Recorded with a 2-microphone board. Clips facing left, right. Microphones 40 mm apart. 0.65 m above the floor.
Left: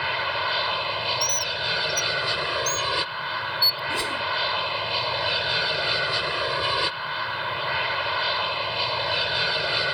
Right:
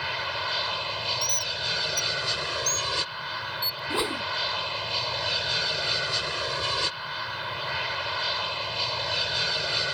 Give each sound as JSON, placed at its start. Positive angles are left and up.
{"t": 0.0, "sound": "an aircraft", "side_deg": 20}
{"t": 1.2, "sound": "a bird", "side_deg": -50}
{"t": 3.9, "sound": "a whoosh", "side_deg": -25}